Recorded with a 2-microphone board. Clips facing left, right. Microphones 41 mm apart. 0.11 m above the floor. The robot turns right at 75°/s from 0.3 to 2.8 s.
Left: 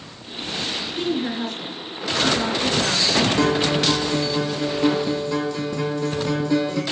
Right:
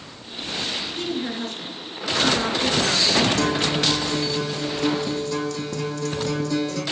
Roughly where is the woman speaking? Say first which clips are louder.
Left 5 dB; behind left.